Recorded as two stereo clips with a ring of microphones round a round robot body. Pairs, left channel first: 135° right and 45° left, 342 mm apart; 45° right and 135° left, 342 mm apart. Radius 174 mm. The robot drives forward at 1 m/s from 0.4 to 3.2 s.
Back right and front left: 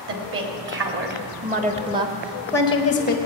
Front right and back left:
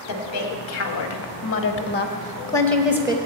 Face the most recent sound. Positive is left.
turn(degrees=-160)